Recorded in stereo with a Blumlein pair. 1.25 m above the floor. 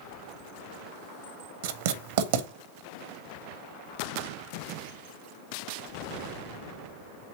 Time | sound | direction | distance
1.6 | writing | 55° right | 0.8 m